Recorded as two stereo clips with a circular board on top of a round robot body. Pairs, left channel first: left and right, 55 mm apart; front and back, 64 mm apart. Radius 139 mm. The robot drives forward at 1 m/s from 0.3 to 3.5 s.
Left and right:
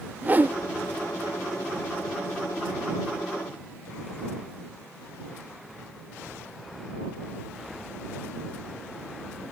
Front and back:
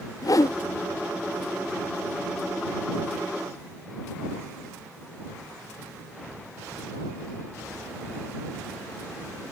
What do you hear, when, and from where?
0.2 s a whoosh: 30° right; by 0.6 s 40° right